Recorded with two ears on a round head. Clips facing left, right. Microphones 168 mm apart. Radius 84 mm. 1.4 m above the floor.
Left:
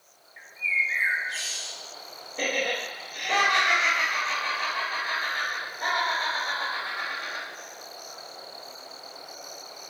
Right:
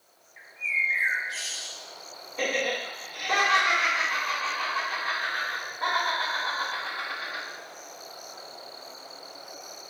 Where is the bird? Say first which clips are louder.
Left 1 dB; centre (ahead or behind), 0.5 m.